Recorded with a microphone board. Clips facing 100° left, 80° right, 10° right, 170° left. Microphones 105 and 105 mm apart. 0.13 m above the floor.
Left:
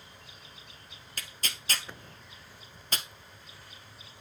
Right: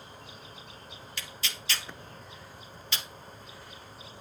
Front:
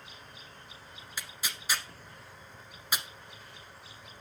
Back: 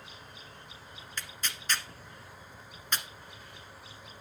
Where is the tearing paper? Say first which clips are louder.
Even, even; 70° left, 1.1 m.